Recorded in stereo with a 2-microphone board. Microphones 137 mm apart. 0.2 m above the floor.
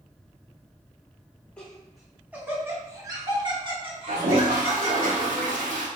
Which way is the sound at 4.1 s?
75° right (ahead or behind).